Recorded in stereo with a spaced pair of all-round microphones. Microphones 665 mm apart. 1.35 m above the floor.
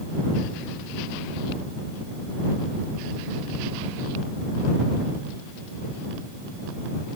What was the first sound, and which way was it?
Only background noise.